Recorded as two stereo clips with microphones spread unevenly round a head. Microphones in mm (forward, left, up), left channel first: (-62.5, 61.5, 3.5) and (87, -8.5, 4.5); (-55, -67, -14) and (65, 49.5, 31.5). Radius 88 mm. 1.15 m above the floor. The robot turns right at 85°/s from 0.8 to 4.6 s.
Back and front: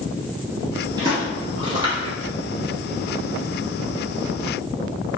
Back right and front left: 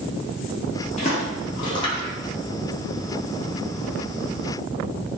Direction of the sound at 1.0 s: 85° right.